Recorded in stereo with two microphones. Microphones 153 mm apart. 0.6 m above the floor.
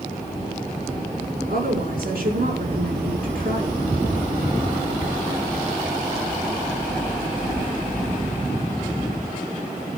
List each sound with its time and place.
1.5 s a woman speaking: 80° right, 5.5 m